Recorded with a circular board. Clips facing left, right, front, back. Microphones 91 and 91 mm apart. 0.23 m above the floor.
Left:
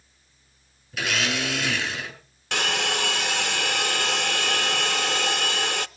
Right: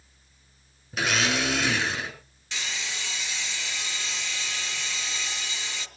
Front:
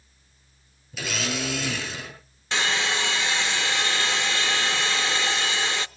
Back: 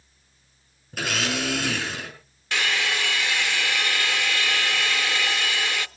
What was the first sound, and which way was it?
A blender, 145° right.